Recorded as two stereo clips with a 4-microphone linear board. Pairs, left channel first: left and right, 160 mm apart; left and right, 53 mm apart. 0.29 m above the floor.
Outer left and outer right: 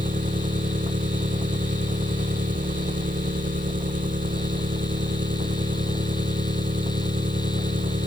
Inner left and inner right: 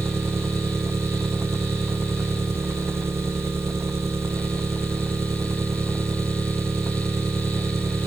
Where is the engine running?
55° right (ahead or behind).